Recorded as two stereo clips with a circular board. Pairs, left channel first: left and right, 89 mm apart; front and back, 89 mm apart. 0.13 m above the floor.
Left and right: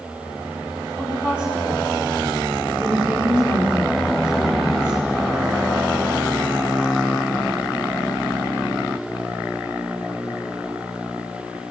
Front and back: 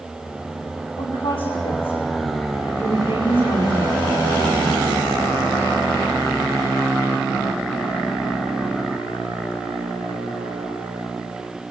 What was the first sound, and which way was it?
A woman speaking, 10° right.